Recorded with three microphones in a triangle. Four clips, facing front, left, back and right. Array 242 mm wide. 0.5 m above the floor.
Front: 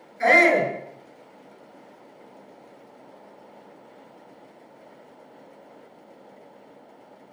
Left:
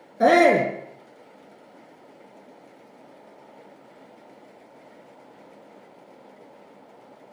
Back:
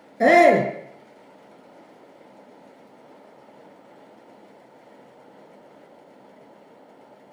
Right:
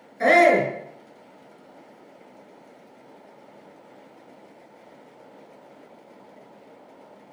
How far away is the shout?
About 6 m.